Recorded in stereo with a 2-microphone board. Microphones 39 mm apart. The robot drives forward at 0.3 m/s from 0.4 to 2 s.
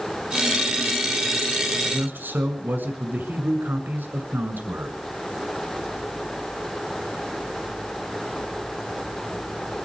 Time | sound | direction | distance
1.9 | a man speaking | 60° right (ahead or behind) | 2 m